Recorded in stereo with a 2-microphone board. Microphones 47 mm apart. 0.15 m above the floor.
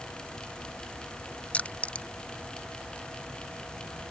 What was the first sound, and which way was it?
Crushing, 30° left (ahead or behind).